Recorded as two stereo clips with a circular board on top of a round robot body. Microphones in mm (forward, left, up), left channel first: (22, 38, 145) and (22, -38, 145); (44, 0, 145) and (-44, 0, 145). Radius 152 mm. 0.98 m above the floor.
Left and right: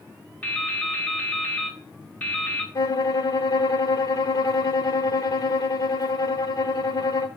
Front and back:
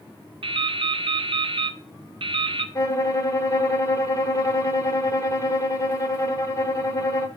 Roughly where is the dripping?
Behind.